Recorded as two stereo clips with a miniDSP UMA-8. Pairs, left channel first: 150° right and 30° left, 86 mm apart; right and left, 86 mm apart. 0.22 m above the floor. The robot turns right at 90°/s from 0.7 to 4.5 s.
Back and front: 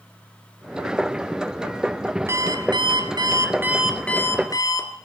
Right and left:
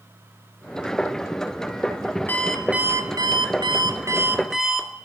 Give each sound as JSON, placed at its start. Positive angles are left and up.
{"t": 2.3, "sound": "an alarm clock", "azimuth_deg": -25, "distance_m": 1.6}